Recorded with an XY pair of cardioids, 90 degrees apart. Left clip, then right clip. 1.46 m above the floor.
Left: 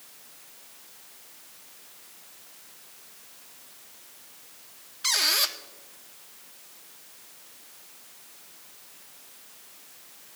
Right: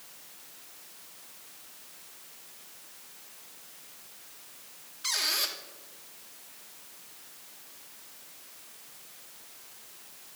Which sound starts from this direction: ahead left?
A squeak, at 5.0 s.